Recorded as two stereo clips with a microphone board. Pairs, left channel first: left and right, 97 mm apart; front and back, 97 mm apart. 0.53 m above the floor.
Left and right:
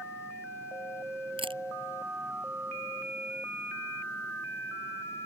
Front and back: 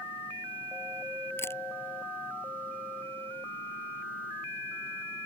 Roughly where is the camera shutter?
Ahead right.